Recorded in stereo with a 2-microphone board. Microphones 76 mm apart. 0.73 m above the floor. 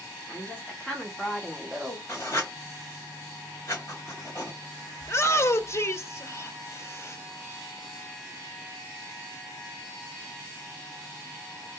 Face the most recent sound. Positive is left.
turn(degrees=35)  # may be behind; listen again after turning